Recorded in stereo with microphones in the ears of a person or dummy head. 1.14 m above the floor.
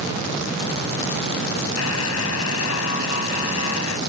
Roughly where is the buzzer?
Left.